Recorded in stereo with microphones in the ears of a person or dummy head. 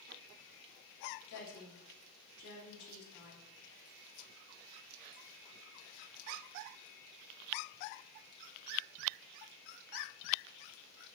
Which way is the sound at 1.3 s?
70° left (ahead or behind).